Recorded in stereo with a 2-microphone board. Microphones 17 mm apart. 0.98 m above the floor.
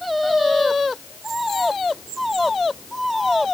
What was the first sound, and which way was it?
Only background noise.